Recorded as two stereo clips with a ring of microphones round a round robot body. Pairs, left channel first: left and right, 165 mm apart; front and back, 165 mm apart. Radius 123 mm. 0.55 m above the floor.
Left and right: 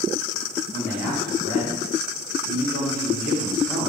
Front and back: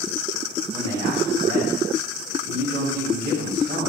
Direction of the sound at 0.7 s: 150° left.